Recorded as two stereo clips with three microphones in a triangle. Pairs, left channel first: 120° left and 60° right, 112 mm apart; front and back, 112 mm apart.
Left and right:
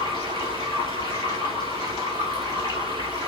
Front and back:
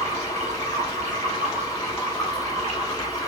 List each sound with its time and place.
0.0 s running water: 170° left, 3.5 m